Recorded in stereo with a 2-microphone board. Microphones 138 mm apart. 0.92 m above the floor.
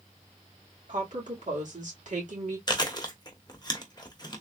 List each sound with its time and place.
0.9 s a woman speaking: 65° right (ahead or behind), 2.5 m
2.7 s chewing: 30° left (ahead or behind), 1.0 m